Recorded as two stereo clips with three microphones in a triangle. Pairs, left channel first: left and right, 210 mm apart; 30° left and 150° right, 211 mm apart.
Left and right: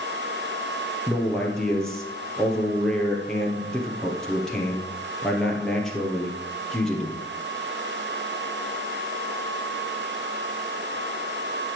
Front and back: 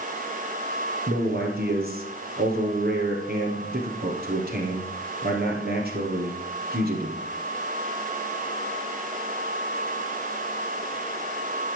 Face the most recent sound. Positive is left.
turn(degrees=175)